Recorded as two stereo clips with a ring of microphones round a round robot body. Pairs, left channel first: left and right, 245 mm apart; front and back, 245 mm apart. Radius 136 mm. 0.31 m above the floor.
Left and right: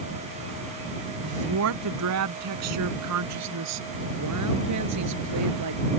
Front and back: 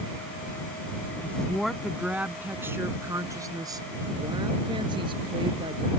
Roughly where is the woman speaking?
Right.